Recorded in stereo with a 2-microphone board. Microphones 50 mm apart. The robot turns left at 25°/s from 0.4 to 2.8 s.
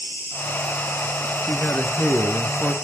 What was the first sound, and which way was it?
An insect, 130° left.